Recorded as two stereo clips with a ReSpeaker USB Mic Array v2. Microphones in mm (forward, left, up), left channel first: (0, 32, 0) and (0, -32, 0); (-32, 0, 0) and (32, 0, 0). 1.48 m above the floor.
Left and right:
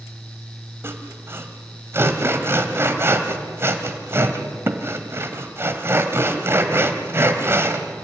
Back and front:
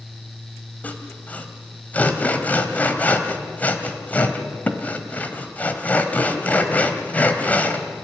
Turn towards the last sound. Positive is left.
turn(degrees=-125)